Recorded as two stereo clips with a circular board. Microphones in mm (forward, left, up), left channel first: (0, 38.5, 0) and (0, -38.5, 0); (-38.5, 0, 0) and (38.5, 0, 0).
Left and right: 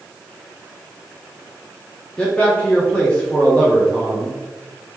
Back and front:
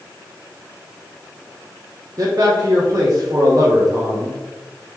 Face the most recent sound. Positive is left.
turn(degrees=20)